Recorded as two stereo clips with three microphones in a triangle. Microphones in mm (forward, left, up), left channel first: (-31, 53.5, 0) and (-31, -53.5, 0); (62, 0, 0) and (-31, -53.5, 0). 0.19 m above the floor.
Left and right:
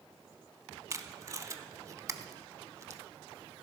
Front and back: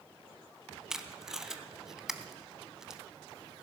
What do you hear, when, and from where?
0.9 s tape being pulled: 70° right, 0.6 m